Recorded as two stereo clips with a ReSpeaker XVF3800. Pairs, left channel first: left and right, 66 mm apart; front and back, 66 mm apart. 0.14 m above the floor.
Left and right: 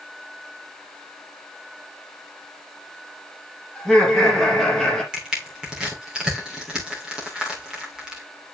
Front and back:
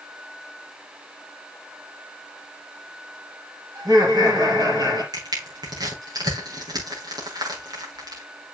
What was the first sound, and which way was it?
Laughter, straight behind.